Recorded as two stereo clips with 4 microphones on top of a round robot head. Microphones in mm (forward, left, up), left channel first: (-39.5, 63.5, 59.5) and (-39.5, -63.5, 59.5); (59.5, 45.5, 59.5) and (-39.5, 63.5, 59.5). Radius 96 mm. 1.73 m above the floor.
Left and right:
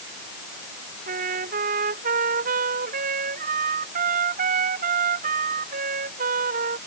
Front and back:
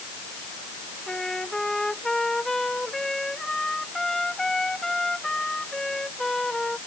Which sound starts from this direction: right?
A trumpet, at 1.1 s.